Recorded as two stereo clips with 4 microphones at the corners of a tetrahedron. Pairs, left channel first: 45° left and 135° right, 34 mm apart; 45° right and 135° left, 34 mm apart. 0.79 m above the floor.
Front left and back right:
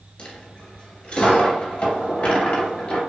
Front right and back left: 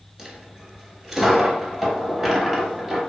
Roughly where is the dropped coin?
Left.